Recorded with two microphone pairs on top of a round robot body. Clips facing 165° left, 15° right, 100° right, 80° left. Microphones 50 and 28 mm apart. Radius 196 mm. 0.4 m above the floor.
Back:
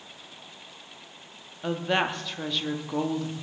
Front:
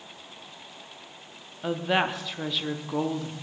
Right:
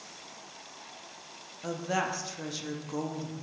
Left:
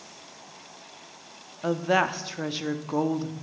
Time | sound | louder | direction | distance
1.6 | a woman speaking | front 1 dB, left 8 dB | 75° left | 1.0 m